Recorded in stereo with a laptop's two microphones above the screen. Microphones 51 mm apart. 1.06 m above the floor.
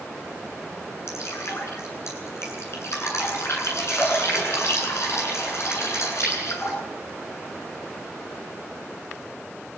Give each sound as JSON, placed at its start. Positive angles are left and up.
{"t": 1.1, "sound": "dripping", "side_deg": 60, "distance_m": 10.0}